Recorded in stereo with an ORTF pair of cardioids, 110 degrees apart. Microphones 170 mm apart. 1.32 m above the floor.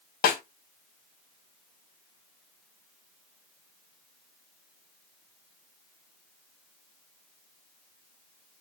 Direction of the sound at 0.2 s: 70° left.